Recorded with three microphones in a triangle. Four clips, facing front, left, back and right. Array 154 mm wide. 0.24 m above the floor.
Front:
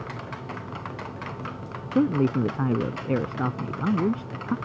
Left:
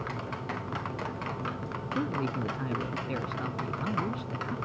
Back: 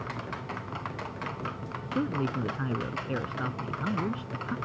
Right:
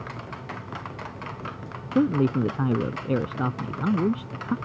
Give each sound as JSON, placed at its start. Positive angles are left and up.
{"t": 1.9, "sound": "a man speaking", "azimuth_deg": -45}